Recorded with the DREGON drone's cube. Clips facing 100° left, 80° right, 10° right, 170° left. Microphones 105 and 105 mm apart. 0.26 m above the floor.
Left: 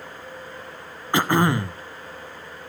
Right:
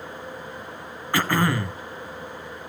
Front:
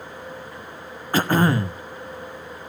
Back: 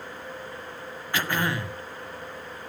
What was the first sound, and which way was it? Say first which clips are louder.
Throat clearing: left 3 dB, front 8 dB; 35° left.